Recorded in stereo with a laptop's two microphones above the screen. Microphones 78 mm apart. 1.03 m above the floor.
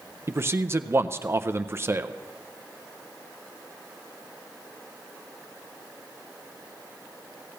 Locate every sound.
0.3 s a man speaking: 35° right (ahead or behind), 0.5 m